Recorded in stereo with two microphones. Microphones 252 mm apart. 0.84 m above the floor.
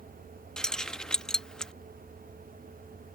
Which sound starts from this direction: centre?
Keys jangling, at 0.6 s.